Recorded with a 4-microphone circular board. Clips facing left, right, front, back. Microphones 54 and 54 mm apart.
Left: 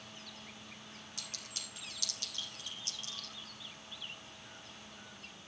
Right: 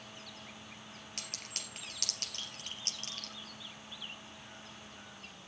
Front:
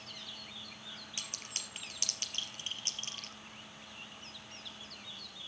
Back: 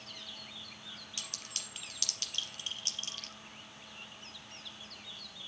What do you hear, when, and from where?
1.2 s a clink: 60° right, 3.5 m